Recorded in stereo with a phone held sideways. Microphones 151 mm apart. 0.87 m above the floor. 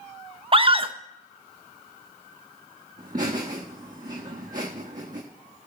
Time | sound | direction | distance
0.5 | a scream | 35° right (ahead or behind) | 0.6 m
3.0 | laughter | 60° right (ahead or behind) | 1.3 m